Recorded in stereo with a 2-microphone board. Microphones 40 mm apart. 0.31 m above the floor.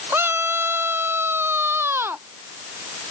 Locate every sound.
0.1 s a scream: 70° right (ahead or behind); by 2.2 s 75° right (ahead or behind)